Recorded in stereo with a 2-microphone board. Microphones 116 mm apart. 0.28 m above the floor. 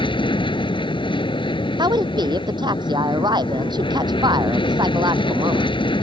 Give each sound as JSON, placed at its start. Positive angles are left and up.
{"t": 0.0, "sound": "an aircraft", "side_deg": 45}
{"t": 1.8, "sound": "a woman speaking", "side_deg": -40}